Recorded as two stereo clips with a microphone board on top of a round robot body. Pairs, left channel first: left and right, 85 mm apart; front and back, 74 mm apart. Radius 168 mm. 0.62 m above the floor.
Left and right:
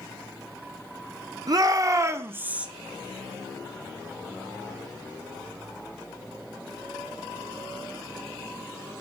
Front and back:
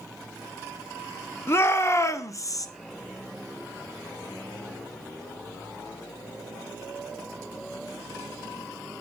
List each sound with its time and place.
1.5 s a shout: 55° right, 1.4 m; by 2.7 s 15° right, 0.8 m